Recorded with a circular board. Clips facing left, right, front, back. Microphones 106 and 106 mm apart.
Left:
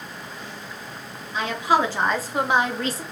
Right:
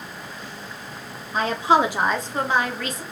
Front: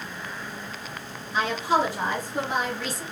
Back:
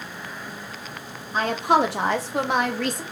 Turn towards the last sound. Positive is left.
turn(degrees=145)